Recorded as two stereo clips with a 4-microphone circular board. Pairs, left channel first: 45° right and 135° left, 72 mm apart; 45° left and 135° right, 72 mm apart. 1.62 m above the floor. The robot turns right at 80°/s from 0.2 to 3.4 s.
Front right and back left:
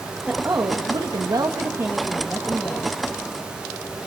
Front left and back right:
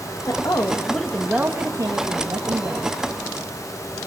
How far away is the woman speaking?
About 1.7 m.